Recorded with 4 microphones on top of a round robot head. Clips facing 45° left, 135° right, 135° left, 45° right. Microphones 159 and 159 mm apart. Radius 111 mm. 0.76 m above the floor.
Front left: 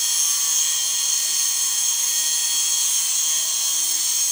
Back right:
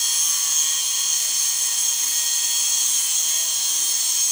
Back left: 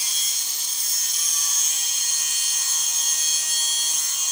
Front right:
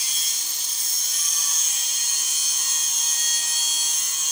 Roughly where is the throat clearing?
I don't hear throat clearing.